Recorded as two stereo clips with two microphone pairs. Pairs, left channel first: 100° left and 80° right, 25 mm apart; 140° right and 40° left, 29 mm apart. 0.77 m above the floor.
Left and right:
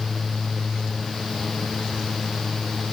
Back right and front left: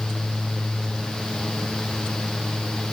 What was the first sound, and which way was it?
Only background noise.